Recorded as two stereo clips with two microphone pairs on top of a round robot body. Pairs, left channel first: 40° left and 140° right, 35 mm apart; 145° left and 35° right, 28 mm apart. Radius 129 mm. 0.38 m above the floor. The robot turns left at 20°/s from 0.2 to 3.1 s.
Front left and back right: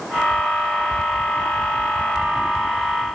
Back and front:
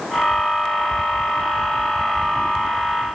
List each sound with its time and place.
Only background noise.